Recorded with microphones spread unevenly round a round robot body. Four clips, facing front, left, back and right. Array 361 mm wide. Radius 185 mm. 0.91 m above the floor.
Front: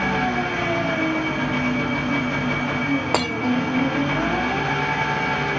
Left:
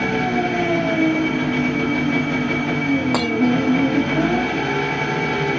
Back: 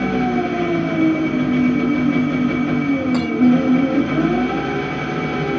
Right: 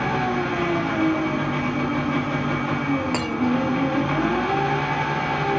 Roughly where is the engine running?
Behind left.